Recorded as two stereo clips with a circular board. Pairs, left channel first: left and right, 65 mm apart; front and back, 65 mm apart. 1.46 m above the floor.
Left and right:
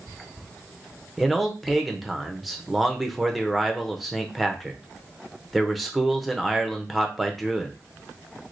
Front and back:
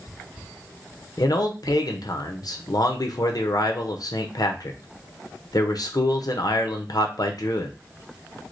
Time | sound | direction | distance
1.2 | a man speaking | straight ahead | 0.6 m